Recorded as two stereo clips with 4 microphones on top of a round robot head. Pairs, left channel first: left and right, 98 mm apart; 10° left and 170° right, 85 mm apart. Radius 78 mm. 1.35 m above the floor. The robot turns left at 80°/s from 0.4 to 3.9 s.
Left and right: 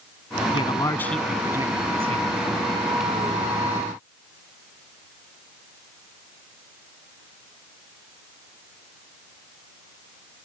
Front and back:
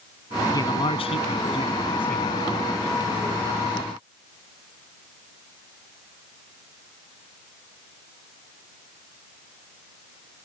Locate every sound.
0.5 s a man speaking: 55° left; by 2.3 s 85° right